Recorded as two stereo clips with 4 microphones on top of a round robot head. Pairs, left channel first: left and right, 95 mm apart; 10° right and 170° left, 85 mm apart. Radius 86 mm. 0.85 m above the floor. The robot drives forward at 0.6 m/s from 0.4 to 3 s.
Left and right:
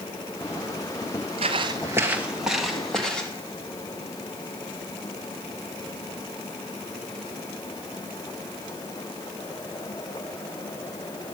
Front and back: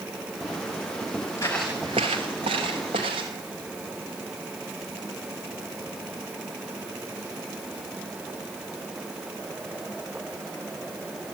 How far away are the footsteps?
About 1.1 m.